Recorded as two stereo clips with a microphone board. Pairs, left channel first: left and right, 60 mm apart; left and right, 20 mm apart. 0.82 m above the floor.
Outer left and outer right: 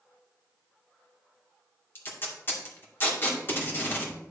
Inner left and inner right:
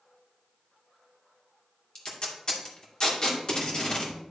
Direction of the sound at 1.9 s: 40° left (ahead or behind).